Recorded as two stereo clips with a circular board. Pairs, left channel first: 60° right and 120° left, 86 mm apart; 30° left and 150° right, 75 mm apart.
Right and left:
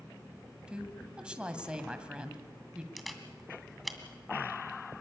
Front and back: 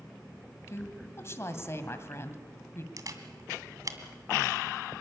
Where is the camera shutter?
150° right, 2 m.